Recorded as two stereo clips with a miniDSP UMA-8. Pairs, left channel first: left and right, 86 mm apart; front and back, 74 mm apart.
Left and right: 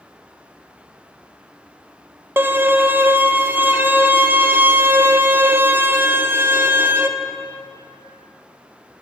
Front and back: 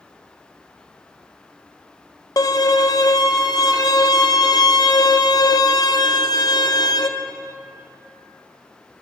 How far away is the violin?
About 0.7 m.